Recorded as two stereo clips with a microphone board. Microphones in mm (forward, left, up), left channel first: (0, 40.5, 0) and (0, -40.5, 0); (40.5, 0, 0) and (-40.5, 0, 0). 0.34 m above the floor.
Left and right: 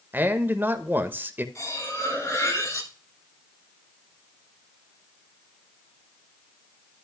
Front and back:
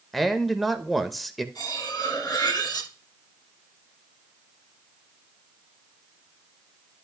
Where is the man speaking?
90° right, 0.9 m.